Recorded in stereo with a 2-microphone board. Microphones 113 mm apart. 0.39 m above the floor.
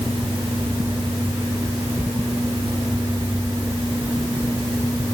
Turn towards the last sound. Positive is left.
No sound to turn to.